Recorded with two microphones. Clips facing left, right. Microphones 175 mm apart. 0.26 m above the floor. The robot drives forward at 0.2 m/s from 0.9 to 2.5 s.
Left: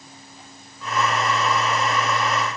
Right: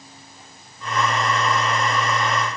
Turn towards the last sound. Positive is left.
No sound to turn to.